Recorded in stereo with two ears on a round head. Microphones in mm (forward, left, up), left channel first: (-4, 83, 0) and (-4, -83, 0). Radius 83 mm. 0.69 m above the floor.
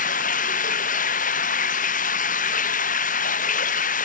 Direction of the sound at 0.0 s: 45° left (ahead or behind).